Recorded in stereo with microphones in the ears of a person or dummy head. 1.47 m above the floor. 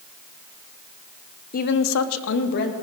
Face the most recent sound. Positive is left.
turn(degrees=45)  # may be behind; listen again after turning